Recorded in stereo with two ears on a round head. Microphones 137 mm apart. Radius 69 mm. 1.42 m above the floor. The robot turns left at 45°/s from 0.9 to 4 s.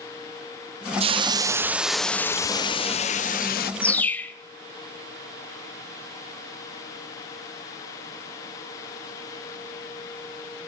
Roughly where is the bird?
Centre.